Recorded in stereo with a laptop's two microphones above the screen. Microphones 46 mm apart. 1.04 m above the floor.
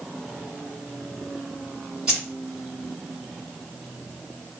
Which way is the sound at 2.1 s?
15° right (ahead or behind).